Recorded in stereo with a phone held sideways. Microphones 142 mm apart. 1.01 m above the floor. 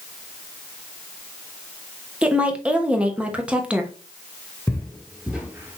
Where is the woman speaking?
10° right (ahead or behind), 1.0 m.